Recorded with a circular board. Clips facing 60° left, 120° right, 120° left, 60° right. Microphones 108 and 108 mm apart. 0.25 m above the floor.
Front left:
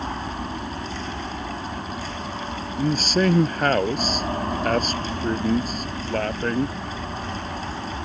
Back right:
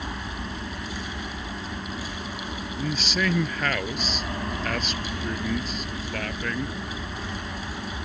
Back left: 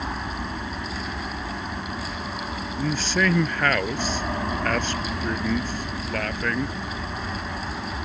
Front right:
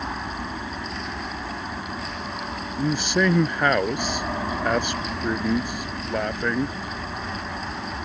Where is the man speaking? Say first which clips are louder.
Front left 7 dB, front right 2 dB; 10° left.